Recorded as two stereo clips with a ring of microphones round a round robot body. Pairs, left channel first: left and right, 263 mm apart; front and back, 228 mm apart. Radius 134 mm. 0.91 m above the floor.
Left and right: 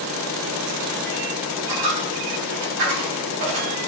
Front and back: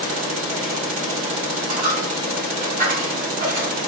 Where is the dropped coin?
115° right, 3.5 m.